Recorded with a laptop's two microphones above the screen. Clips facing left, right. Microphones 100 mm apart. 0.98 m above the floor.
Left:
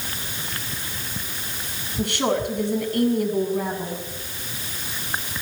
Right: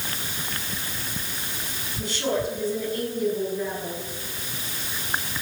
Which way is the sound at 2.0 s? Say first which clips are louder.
Left 3 dB; 65° left (ahead or behind).